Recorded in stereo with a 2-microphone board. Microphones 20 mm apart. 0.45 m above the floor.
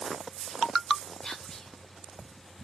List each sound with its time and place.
1.2 s whispering: 40° left (ahead or behind), 1.9 m